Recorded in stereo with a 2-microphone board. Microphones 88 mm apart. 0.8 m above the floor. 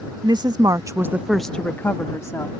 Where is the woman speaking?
55° right (ahead or behind); by 2.6 s 40° left (ahead or behind).